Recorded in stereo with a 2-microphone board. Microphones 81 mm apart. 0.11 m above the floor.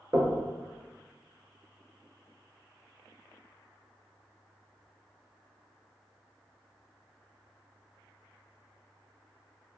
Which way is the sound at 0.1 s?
35° right (ahead or behind).